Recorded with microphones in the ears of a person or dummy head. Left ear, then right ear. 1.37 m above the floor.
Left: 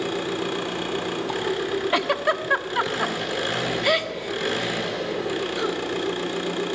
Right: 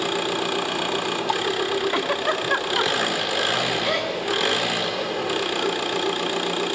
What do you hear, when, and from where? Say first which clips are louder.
0.0 s an engine running: right 3 dB; 15° right (ahead or behind), 1.2 m
1.9 s a giggle: left 1 dB; 25° left (ahead or behind), 1.2 m